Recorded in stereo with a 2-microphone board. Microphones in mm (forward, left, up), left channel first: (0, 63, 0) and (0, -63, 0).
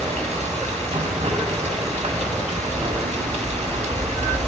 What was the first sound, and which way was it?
Running water, 60° right (ahead or behind).